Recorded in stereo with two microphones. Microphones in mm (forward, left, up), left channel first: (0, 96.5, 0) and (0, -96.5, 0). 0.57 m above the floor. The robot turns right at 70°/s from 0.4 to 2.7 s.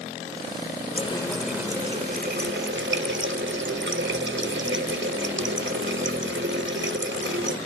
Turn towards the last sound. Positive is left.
turn(degrees=-95)